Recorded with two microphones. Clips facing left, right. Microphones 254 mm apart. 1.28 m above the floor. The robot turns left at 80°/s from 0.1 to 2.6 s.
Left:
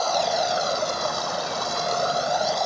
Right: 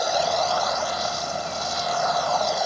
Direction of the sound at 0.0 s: 165° right.